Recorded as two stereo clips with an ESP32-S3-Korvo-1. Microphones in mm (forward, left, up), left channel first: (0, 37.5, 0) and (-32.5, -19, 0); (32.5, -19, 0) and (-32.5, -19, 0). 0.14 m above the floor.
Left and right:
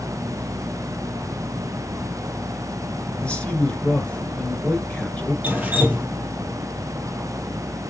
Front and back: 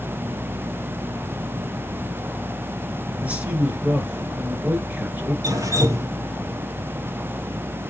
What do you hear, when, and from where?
3.2 s a man speaking: 125° left, 1.6 m
5.4 s dripping: 175° left, 1.6 m